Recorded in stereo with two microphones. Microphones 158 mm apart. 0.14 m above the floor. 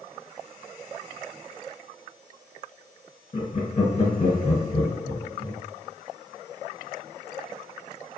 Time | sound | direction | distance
3.3 | laughter | 45° left (ahead or behind) | 1.9 m